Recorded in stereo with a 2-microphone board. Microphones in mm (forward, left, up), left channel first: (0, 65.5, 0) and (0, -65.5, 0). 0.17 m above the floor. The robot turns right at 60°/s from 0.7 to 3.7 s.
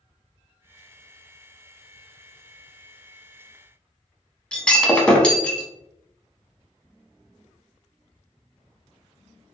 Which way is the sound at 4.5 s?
10° left (ahead or behind).